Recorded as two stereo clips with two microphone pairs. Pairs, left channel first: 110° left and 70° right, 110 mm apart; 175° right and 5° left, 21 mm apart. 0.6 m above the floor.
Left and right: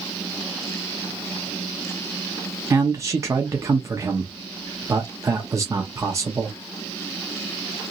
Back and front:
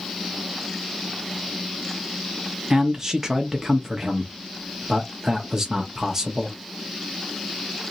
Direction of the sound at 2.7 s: 45° right.